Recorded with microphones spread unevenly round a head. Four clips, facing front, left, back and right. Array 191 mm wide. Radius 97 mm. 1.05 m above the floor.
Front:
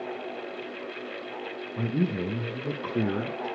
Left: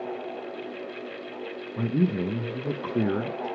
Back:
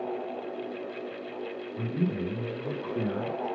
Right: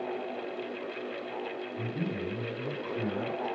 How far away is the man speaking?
About 0.7 m.